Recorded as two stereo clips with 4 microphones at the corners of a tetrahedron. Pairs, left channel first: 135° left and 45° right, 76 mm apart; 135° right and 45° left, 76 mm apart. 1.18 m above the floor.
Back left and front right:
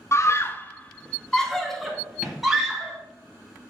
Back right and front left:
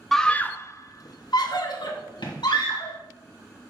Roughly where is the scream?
Behind left.